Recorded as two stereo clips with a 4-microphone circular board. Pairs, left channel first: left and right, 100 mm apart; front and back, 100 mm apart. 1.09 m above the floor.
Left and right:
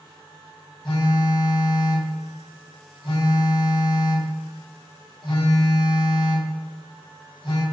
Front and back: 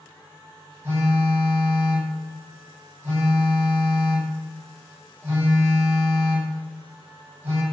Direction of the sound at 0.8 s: 120° left.